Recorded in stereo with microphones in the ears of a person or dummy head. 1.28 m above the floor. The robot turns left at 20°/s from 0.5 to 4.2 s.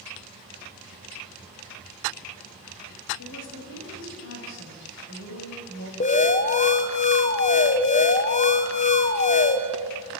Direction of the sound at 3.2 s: 85° left.